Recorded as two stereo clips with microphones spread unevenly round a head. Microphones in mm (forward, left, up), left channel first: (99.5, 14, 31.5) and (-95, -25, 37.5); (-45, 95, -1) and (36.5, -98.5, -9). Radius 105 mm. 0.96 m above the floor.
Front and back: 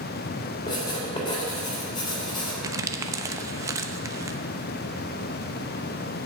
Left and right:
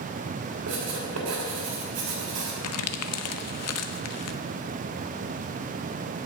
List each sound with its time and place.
0.7 s writing: 55° right, 3 m
2.6 s crumpling: 115° left, 0.7 m